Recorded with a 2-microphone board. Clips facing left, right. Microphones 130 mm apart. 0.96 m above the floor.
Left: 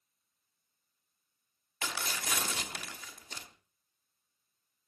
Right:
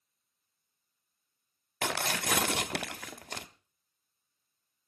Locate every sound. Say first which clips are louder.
1.8 s tearing paper: right 6 dB; 65° right (ahead or behind), 1.0 m